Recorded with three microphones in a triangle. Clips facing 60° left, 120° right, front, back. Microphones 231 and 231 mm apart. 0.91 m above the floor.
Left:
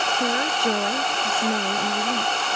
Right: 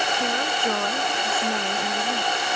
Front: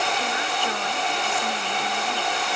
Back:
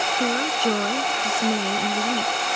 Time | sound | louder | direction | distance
0.2 | a woman speaking | left 5 dB, back 6 dB | 135° left | ?